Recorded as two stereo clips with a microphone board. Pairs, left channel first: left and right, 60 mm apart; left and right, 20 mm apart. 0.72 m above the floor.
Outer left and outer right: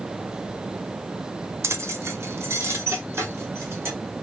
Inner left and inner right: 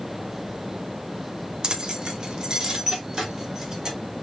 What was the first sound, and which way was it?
Keys jangling, 45° right (ahead or behind).